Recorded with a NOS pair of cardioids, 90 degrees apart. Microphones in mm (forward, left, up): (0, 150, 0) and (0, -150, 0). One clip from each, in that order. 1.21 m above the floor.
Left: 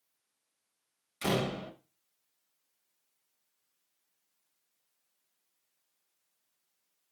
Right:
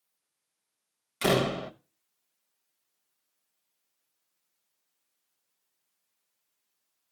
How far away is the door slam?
About 1.1 m.